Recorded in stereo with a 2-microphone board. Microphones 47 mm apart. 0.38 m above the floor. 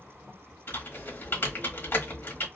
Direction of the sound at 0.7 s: 50° left (ahead or behind).